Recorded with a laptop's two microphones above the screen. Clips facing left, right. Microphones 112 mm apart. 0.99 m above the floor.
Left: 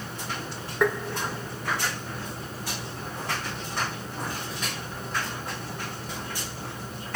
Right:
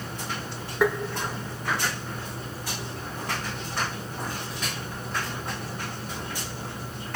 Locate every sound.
0.8 s tapping: 5° right (ahead or behind), 1.1 m